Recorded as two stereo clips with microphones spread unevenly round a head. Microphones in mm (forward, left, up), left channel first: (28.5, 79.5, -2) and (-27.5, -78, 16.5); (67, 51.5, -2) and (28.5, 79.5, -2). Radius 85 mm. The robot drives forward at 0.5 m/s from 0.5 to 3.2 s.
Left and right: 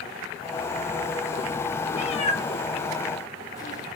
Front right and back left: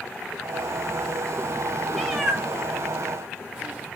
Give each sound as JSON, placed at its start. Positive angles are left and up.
{"t": 1.9, "sound": "a cat meowing", "azimuth_deg": 60, "distance_m": 1.0}